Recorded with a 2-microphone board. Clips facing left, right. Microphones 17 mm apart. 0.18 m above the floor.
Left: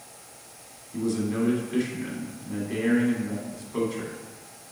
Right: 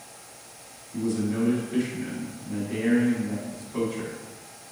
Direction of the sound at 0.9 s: 25° left (ahead or behind).